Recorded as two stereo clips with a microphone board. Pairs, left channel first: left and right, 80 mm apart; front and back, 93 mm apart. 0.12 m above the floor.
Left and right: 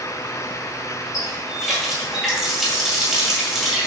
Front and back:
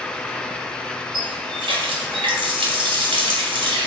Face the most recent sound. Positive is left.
turn(degrees=-175)